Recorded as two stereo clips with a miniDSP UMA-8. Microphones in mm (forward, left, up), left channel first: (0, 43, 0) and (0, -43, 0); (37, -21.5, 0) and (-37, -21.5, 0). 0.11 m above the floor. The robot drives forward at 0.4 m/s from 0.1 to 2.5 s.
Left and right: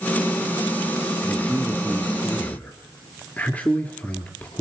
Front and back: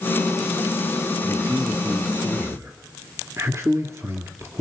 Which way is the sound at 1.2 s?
140° left.